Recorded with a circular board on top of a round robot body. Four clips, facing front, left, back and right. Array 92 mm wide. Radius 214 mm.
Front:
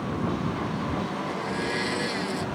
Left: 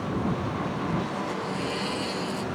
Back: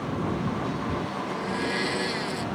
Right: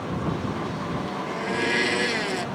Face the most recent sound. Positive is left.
turn(degrees=-90)